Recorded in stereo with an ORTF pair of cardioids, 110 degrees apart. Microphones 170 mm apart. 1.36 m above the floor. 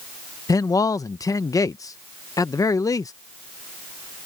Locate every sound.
0.5 s a man speaking: 20° left